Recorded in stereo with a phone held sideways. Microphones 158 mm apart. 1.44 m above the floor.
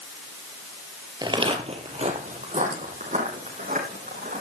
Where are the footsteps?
25° right (ahead or behind), 1.6 m; by 4.4 s 60° right (ahead or behind), 5 m.